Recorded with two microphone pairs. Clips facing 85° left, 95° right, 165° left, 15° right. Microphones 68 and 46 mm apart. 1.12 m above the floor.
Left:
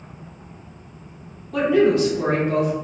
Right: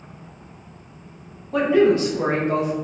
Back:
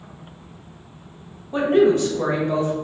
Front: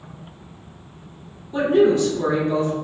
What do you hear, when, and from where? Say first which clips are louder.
1.5 s a woman speaking: even, even; 155° right, 0.9 m